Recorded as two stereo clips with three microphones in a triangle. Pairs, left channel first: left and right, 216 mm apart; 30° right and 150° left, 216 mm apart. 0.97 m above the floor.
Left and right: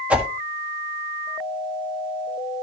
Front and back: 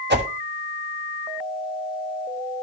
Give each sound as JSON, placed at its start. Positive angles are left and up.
{"t": 0.1, "sound": "a whoosh", "azimuth_deg": -175, "distance_m": 1.4}